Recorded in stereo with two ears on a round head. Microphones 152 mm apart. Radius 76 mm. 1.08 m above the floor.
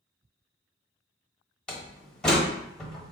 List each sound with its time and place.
1.7 s a door slam: 5° left (ahead or behind), 1.0 m